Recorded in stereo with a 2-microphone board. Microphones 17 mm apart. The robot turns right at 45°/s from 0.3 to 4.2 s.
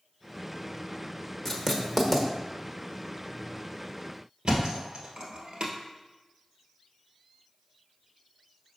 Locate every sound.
1.4 s writing: 25° left (ahead or behind), 1.0 m; by 2.3 s centre (ahead or behind), 1.0 m
4.5 s a thud: 60° right (ahead or behind), 1.5 m